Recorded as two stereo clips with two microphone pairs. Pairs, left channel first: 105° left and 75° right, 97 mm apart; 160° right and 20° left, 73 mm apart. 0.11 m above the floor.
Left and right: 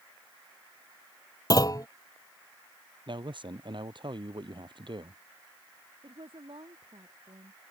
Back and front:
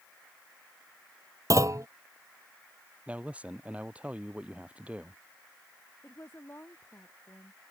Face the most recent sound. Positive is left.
turn(degrees=-105)